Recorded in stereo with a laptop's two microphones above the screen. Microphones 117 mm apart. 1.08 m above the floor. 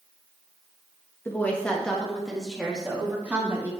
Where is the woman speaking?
20° left (ahead or behind), 1.4 m; by 3.7 s 15° right (ahead or behind), 2.5 m.